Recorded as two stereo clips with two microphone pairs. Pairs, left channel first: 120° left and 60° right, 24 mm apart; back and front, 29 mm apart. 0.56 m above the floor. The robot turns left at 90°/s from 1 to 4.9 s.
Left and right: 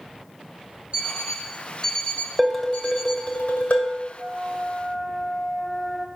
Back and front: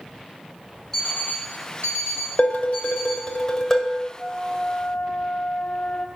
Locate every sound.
0.9 s an alarm clock: 105° right, 2.5 m; by 3.3 s 45° left, 2.5 m
2.4 s dishes clattering: 150° right, 1.7 m; by 4.0 s 70° left, 1.7 m
4.2 s a flute: 85° right, 1.0 m; by 6.1 s 150° right, 1.0 m